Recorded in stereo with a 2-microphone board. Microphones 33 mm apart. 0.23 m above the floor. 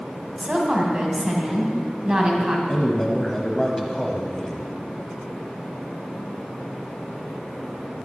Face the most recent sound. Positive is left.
turn(degrees=15)  # may be behind; listen again after turning